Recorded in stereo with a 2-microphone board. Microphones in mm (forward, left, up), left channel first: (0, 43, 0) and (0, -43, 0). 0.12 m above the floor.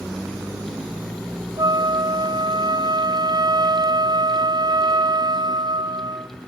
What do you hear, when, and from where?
1.6 s a flute: 55° right (ahead or behind), 0.8 m